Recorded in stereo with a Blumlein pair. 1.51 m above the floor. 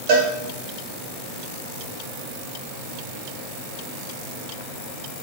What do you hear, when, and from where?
0.1 s a cowbell: 50° right, 0.9 m